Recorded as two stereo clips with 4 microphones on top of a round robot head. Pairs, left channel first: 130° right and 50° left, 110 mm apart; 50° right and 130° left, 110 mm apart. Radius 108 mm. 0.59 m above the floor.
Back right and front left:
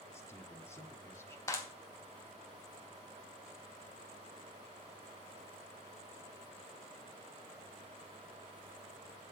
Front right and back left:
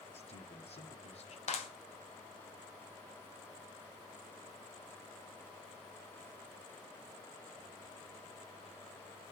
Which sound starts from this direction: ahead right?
A man speaking, at 0.1 s.